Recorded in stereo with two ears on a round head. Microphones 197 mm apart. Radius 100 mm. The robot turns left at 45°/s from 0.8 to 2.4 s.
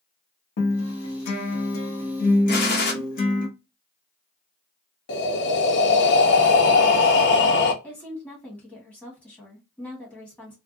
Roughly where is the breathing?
Left.